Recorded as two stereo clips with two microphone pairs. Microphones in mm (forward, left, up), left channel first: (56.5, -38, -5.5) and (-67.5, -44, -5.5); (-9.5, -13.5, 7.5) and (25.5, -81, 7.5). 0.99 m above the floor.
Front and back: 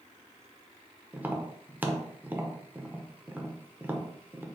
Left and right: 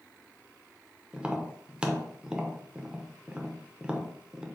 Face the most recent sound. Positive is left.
turn(degrees=-120)